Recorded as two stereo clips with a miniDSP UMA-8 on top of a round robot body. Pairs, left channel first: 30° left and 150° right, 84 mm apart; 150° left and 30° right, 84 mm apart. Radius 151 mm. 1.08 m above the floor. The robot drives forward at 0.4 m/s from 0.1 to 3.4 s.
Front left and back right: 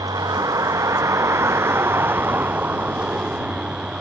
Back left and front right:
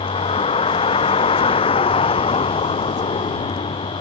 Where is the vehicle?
160° left; by 4.0 s 130° left.